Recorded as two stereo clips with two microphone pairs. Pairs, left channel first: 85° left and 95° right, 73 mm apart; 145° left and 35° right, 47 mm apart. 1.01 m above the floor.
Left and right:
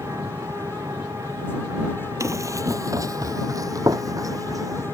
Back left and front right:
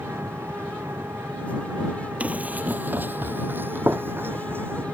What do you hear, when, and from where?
0.0 s an engine running: 55° right
2.2 s running footsteps: 80° right; by 4.8 s 65° right